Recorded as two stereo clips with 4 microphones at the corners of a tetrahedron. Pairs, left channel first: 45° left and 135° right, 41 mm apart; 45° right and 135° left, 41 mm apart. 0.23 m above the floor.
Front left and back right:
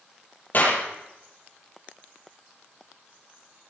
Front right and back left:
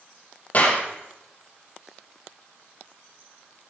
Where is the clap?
5° left, 6 m.